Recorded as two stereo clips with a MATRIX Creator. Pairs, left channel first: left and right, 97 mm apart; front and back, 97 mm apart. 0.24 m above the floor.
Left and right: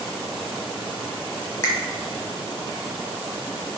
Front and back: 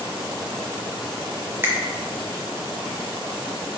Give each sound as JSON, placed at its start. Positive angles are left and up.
{"t": 1.6, "sound": "a finger snap", "azimuth_deg": 130, "distance_m": 1.0}